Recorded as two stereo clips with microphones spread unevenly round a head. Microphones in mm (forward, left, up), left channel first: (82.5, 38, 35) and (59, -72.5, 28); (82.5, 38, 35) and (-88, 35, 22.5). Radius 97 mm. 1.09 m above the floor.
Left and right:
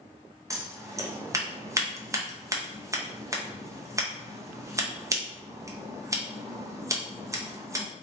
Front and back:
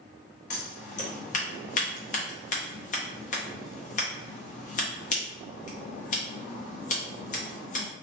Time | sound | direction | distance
0.5 | scissors | 45° right | 0.7 m